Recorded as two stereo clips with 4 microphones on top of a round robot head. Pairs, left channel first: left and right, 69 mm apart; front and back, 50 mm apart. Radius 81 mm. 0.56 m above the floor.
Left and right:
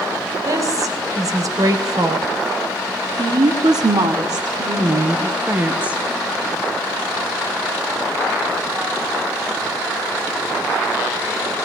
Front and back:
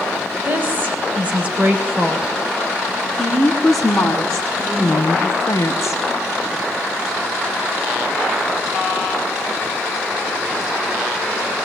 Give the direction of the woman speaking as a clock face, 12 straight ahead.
4 o'clock.